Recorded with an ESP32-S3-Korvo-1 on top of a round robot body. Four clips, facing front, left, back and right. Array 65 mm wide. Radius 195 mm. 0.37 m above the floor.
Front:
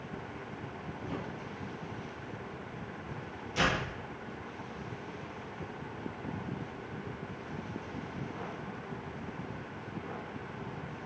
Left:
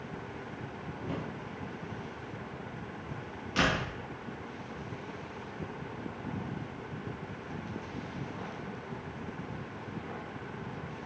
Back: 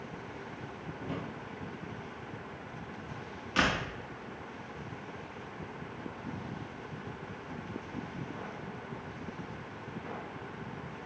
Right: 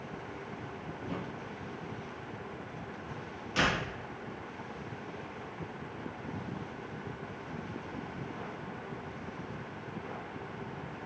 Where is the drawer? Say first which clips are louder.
Left 2 dB, back 1 dB; 145° left, 7.5 m.